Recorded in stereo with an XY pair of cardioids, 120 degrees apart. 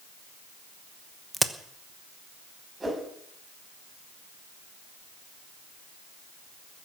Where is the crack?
10° right, 1.1 m.